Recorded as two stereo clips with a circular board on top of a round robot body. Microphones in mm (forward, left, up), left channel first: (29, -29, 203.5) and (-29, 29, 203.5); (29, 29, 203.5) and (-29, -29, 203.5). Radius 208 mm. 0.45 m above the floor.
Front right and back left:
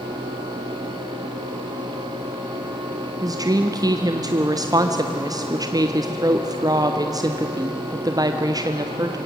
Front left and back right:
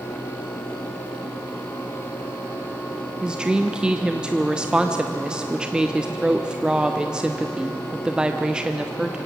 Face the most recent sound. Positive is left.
turn(degrees=150)